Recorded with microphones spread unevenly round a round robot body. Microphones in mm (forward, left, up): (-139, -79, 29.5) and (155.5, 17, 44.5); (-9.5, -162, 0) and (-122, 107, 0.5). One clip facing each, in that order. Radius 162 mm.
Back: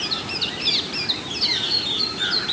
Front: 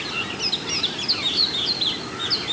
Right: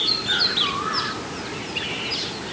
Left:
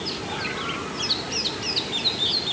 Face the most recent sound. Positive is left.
No sound to turn to.